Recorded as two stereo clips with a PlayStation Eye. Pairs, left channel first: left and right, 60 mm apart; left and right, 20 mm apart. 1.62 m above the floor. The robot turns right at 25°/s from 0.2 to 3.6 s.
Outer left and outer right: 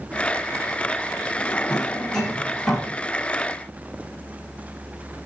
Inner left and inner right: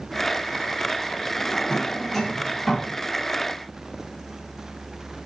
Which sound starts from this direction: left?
A drawer, at 1.4 s.